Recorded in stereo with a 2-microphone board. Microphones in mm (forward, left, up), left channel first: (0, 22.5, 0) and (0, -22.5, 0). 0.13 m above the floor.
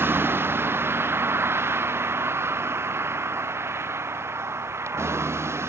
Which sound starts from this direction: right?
A vehicle, at 0.0 s.